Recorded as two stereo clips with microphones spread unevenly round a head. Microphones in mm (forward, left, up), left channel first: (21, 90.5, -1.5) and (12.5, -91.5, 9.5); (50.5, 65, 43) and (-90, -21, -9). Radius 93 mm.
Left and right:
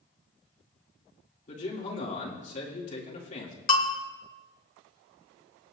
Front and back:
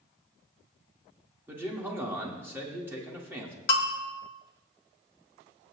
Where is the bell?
55° left, 1.5 m.